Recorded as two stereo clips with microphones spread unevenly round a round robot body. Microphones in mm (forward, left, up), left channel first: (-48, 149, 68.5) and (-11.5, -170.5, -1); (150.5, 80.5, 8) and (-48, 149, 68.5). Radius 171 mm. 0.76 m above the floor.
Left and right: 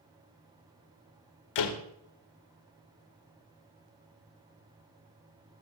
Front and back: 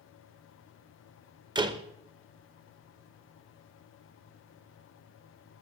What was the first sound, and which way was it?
A door slam, 90° left.